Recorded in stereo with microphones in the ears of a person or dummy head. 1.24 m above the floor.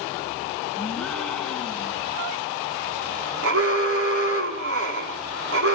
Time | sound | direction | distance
0.8 | a gasp | 5° left (ahead or behind) | 1.8 m
3.4 | an alarm | 75° right (ahead or behind) | 4.5 m